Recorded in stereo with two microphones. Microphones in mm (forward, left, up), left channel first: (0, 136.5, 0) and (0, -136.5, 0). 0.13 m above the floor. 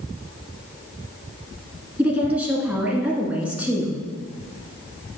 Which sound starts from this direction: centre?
A woman speaking, at 2.0 s.